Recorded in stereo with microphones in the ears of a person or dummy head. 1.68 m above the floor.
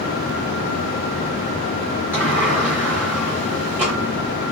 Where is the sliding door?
10° right (ahead or behind), 1.1 m.